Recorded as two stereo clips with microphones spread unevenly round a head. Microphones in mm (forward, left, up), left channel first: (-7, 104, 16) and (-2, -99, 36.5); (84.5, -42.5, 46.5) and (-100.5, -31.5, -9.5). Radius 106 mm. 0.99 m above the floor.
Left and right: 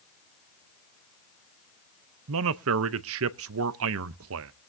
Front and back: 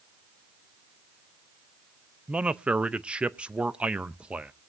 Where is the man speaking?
105° right, 0.6 m.